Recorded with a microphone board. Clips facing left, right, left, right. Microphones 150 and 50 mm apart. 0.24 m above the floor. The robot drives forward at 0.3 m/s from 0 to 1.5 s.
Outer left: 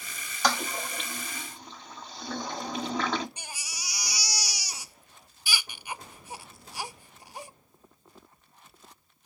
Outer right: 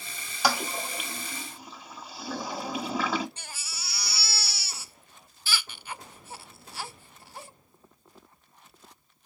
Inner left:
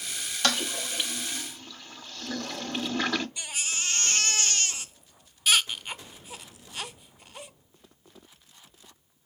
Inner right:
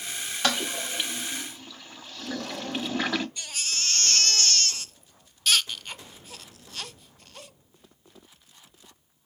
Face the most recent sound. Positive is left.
turn(degrees=15)  # may be behind; listen again after turning